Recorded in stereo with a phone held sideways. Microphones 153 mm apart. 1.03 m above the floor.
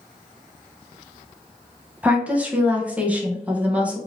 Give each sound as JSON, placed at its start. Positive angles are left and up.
{"t": 2.0, "sound": "a woman speaking", "side_deg": -10, "distance_m": 0.7}